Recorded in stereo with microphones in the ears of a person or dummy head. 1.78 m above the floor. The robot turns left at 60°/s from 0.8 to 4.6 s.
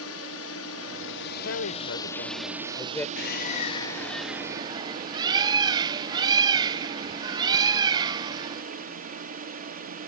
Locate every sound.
0.0 s a drone: 100° left; by 10.1 s 125° right
1.4 s a woman speaking: 115° left; by 3.1 s 15° left
3.2 s a bird: 70° left; by 8.6 s 20° right